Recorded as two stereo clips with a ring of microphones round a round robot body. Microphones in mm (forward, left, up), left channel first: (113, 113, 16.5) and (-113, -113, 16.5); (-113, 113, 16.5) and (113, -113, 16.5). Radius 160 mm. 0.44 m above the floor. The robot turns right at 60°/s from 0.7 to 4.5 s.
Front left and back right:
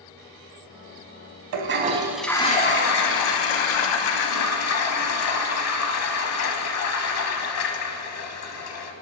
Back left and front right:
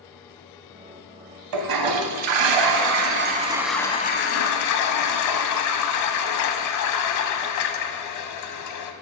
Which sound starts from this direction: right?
A toilet flushing, at 1.5 s.